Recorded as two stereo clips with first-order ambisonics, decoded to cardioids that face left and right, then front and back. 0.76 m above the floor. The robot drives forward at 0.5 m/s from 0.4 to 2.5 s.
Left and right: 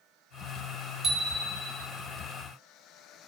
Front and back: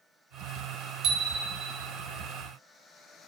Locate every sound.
1.0 s a bicycle bell: 145° right, 2 m; by 1.9 s 150° right, 2.5 m